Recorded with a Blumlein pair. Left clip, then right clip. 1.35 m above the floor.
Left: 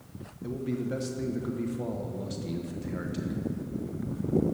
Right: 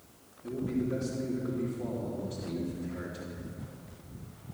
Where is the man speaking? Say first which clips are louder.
Even; 30° left, 1.5 m.